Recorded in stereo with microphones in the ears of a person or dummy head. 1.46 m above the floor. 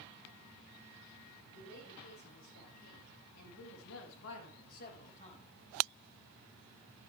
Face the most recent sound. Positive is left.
turn(degrees=35)  # may be behind; listen again after turning